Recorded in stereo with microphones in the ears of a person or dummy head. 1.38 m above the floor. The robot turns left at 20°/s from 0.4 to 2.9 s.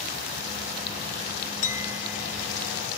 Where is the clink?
35° left (ahead or behind); by 2.9 s 60° left (ahead or behind).